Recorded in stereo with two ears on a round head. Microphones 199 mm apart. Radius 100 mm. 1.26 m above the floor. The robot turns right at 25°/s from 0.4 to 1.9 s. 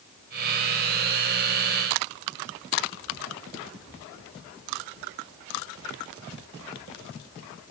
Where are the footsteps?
No footsteps in this recording.